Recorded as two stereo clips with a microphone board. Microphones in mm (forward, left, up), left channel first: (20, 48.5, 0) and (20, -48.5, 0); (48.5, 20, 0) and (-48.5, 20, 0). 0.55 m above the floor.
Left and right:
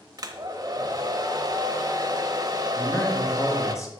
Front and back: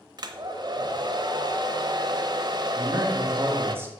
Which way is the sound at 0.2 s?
135° right.